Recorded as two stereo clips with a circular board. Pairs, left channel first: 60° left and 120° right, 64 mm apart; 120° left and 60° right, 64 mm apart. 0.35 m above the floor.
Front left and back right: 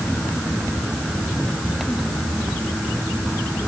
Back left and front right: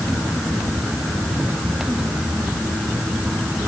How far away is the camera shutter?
No camera shutter in this recording.